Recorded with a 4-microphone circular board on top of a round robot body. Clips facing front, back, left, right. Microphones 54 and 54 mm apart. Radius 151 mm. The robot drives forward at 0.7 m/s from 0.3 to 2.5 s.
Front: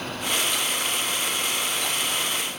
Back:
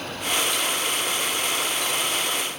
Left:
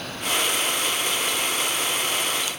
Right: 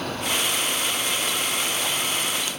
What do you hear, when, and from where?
Only background noise.